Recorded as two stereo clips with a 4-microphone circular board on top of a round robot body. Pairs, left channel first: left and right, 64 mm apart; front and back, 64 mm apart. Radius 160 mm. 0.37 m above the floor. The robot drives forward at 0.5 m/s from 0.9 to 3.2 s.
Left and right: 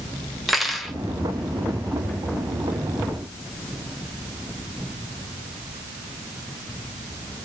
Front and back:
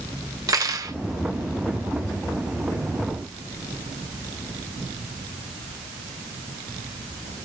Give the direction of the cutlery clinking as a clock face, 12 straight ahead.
6 o'clock.